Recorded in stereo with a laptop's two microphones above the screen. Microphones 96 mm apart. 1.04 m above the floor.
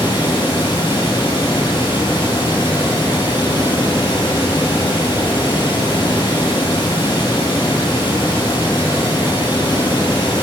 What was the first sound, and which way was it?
Running water, 60° left (ahead or behind).